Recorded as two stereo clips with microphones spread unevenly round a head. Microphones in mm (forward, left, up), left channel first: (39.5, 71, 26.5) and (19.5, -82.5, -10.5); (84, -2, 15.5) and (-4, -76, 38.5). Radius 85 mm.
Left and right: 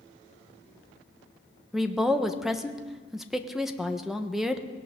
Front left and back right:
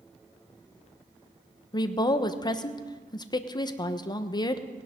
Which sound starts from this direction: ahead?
A woman speaking, at 1.7 s.